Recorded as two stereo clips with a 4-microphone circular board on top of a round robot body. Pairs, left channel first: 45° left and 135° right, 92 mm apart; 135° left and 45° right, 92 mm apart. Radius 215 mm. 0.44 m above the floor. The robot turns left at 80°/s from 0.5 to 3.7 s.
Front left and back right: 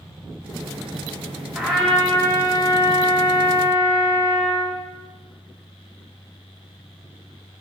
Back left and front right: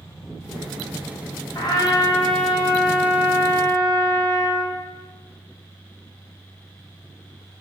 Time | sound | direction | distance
1.6 | a trumpet | 150° left | 1.1 m